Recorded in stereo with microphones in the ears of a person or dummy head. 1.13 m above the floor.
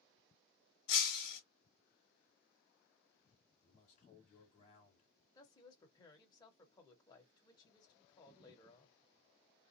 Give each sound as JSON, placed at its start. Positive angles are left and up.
{"t": 0.9, "sound": "breaking glass", "side_deg": 45, "distance_m": 1.8}
{"t": 3.6, "sound": "a man speaking", "side_deg": 40, "distance_m": 2.5}
{"t": 5.3, "sound": "a woman speaking", "side_deg": 20, "distance_m": 1.4}